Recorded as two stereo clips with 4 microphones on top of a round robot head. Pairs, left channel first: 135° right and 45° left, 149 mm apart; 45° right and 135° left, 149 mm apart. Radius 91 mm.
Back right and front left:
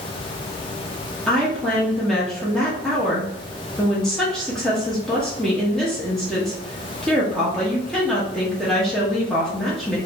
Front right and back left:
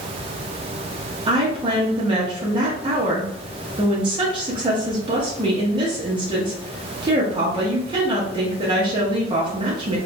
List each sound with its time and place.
1.3 s a woman speaking: 140° left, 0.7 m